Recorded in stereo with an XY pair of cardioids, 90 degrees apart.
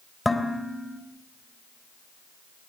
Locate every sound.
0.2 s dishes clattering: 15° left, 3.5 m